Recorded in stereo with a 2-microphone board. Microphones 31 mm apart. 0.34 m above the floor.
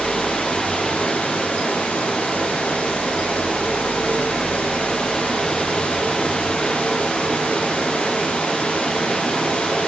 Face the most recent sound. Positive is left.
turn(degrees=85)